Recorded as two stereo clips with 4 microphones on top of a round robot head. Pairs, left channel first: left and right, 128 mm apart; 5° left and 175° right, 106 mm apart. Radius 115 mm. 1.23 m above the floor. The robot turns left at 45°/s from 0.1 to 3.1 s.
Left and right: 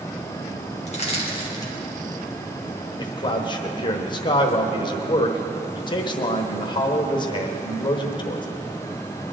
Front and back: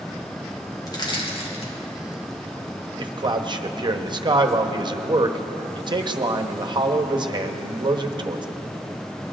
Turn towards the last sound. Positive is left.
turn(degrees=140)